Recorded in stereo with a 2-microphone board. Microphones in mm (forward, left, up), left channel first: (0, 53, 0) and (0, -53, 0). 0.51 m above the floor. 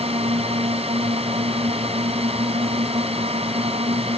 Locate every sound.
0.0 s a drone: 70° right (ahead or behind)